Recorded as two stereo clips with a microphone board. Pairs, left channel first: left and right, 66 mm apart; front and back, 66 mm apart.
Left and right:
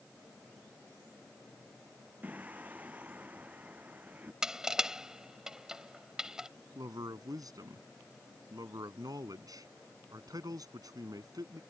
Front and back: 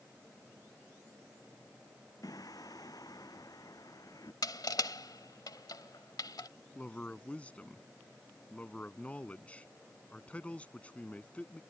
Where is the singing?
25° right.